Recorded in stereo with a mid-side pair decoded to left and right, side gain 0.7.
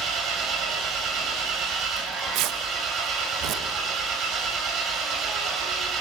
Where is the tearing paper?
65° right, 1.9 m.